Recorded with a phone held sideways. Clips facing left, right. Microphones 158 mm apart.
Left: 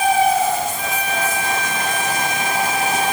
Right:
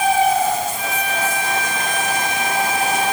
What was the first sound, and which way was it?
Only background noise.